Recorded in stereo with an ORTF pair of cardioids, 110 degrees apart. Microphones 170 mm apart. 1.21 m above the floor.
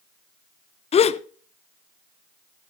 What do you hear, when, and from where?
0.9 s a gasp: 40° left, 0.7 m